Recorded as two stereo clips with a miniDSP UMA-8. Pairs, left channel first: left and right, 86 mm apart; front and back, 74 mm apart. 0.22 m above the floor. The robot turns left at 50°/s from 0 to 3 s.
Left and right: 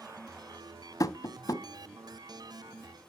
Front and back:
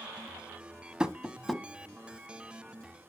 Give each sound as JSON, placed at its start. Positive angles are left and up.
{"t": 1.0, "sound": "tapping", "azimuth_deg": 110, "distance_m": 0.6}